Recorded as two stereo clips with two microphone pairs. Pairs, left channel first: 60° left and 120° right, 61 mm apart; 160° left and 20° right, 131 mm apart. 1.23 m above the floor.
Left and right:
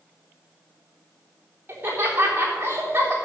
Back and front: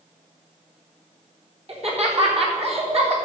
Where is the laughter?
60° right, 3.5 m.